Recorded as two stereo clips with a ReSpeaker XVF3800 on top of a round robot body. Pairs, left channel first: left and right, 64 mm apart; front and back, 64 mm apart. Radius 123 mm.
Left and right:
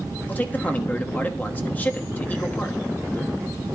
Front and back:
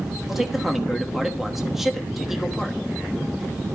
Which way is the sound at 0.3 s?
95° left.